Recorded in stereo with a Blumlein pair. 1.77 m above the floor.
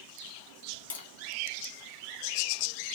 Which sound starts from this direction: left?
Tapping, at 0.9 s.